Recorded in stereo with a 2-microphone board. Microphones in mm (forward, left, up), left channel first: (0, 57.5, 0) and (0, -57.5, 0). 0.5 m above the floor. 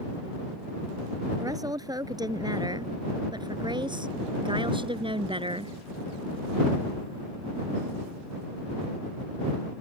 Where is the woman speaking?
30° right (ahead or behind); by 5.8 s 50° right (ahead or behind).